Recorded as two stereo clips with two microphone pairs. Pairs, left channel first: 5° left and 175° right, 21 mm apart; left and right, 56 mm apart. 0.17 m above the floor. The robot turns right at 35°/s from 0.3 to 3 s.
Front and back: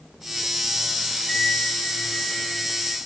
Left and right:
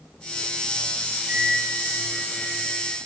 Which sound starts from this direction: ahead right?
A flute, at 1.3 s.